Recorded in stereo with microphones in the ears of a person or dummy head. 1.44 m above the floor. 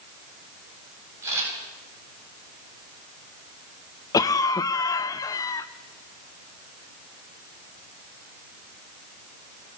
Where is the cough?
10° left (ahead or behind), 0.6 m.